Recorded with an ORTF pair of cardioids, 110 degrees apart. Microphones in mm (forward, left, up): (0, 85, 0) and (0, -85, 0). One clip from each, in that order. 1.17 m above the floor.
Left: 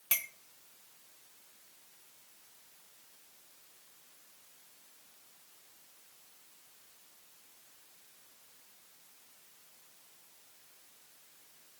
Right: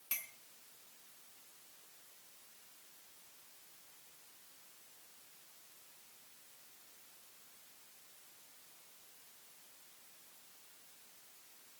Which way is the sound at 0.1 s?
40° left.